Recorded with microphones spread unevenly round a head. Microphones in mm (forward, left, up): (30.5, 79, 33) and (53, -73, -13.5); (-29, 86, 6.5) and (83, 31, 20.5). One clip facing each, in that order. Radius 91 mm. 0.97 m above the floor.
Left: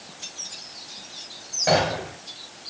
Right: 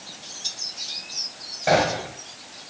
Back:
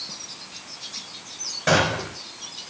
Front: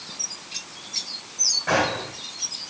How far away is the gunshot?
About 3.5 m.